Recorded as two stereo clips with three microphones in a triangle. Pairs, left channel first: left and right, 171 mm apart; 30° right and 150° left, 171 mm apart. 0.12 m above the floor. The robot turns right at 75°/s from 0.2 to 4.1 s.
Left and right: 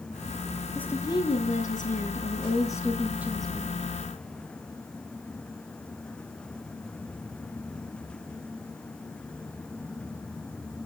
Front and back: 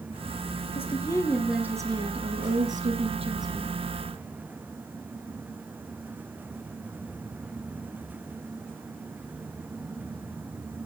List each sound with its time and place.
0.8 s a woman speaking: 5° left, 1.8 m; by 3.8 s 120° right, 1.8 m